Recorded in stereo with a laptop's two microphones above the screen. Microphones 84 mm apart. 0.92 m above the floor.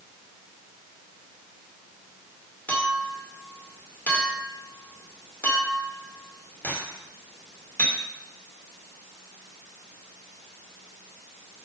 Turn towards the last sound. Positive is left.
turn(degrees=20)  # may be behind; listen again after turning